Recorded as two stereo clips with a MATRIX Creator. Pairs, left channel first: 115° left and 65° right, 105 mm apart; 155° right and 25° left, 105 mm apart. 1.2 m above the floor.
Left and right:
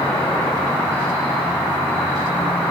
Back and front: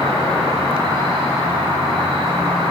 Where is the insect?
45° left, 2.0 m.